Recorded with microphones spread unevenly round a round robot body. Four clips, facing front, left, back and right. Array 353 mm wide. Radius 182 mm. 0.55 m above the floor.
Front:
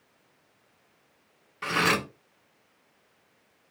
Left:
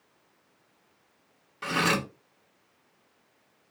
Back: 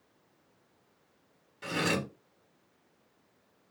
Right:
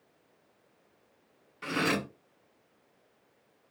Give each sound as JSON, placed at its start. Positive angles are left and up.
{"t": 1.6, "sound": "cutlery clinking", "azimuth_deg": 50, "distance_m": 1.2}